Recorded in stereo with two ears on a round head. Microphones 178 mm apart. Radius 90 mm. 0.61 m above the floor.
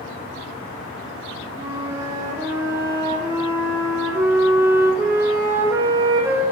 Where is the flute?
15° right (ahead or behind), 0.5 m.